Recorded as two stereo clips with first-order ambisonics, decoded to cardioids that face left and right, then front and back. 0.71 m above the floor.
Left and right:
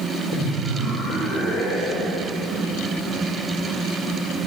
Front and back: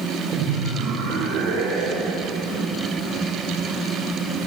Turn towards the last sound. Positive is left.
turn(degrees=175)